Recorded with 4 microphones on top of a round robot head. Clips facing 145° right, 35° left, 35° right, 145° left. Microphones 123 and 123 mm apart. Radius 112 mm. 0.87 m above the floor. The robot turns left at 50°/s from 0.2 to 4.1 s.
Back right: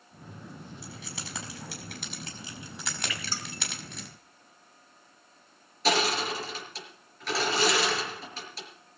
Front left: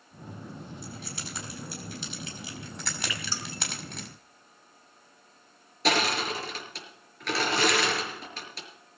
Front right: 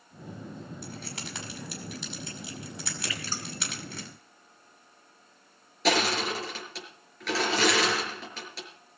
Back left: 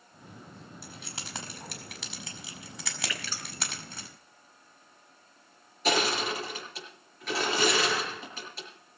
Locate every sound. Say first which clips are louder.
0.8 s keys jangling: front left 2 dB, front right 5 dB; 130° right, 5 m; by 4.1 s 65° left, 5 m
3.1 s dripping: front left 1 dB, front right 2 dB; 35° left, 4 m; by 3.4 s 15° left, 4 m
5.8 s crushing: even, front right 2 dB; 5° right, 5 m